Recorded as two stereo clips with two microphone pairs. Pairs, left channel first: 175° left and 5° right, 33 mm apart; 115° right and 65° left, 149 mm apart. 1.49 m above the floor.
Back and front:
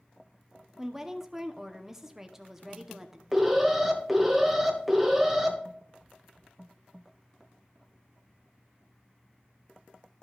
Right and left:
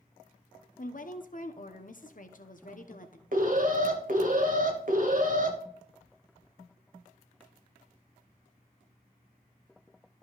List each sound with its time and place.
0.8 s a woman speaking: 85° right, 0.9 m
3.3 s an alarm: 80° left, 1.3 m